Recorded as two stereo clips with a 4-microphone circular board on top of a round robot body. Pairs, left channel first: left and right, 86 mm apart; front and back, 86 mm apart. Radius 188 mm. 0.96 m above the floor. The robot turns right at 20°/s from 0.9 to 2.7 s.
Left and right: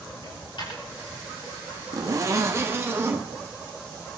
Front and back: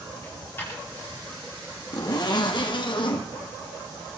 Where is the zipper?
45° right, 1.7 m; by 3.2 s 30° right, 1.7 m.